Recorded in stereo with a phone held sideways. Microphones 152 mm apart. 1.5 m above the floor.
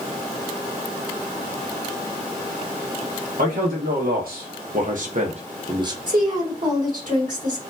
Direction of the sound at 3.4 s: 70° right (ahead or behind).